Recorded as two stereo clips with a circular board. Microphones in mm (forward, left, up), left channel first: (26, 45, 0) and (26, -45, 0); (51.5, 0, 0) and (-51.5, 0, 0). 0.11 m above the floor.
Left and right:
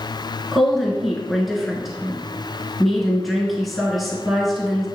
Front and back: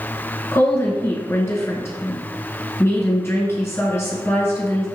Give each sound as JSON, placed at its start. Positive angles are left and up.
{"t": 0.5, "sound": "a woman speaking", "azimuth_deg": 0, "distance_m": 1.3}